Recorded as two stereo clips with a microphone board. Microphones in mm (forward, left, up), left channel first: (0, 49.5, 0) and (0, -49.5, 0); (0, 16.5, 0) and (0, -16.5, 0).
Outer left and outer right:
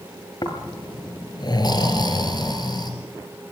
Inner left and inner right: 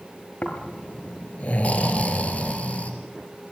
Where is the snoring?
45° left (ahead or behind), 3 m.